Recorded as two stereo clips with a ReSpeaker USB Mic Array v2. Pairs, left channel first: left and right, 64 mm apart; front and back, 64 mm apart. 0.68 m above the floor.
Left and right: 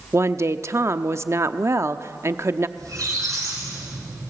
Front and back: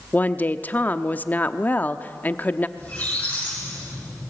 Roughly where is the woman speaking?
Ahead right.